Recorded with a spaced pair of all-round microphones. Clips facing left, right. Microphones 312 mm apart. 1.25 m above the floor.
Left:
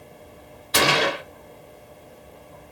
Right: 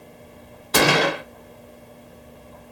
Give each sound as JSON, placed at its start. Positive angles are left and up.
{"t": 0.7, "sound": "a gunshot", "side_deg": -60, "distance_m": 0.6}